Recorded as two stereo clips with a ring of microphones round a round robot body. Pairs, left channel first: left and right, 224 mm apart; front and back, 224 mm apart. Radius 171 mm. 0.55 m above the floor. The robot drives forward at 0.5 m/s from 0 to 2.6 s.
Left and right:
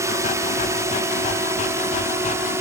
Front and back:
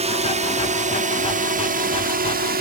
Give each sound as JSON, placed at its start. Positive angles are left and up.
{"t": 0.0, "sound": "a drone", "azimuth_deg": -155}